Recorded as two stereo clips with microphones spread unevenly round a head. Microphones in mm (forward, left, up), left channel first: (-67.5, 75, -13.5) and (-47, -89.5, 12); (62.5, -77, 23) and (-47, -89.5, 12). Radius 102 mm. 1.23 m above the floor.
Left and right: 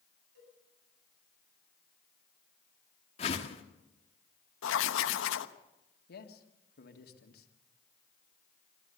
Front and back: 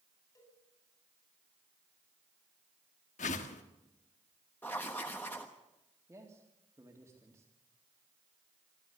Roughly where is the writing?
Left.